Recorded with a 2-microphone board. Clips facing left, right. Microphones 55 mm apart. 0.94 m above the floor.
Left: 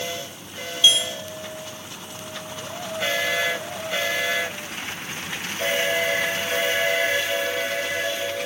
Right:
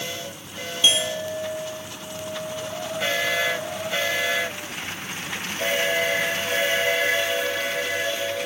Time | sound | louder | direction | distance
0.8 | a clink | left 1 dB | 25° right (ahead or behind) | ?